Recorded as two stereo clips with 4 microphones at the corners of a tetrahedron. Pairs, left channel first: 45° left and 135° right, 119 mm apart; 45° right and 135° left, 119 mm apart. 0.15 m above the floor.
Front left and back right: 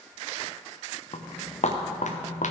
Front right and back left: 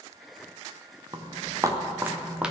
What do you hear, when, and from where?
1.1 s footsteps: 80° left, 1.7 m; by 2.5 s 50° left, 1.8 m